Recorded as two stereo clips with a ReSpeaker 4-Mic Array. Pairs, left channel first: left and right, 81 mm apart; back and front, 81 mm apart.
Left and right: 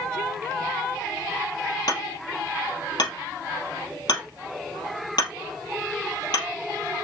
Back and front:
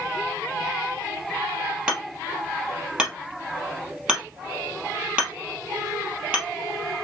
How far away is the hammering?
About 2.5 m.